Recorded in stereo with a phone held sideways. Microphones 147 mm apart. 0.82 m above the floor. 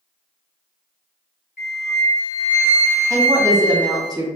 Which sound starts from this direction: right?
A woman speaking, at 3.1 s.